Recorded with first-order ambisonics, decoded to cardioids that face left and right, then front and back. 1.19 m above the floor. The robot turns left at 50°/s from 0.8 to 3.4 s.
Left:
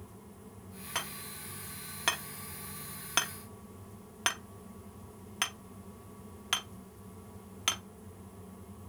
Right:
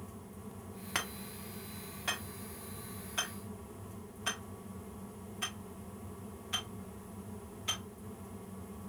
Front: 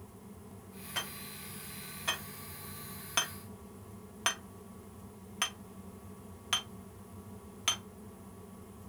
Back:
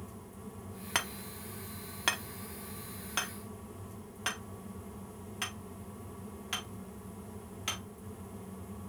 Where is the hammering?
165° right, 1.0 m; by 7.8 s 70° left, 1.0 m.